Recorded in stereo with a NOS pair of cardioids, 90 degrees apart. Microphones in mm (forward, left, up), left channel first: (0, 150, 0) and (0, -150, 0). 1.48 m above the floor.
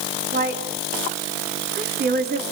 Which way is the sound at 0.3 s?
30° right.